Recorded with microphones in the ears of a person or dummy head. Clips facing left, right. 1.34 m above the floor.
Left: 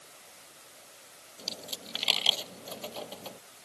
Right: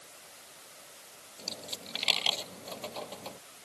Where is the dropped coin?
10° left (ahead or behind).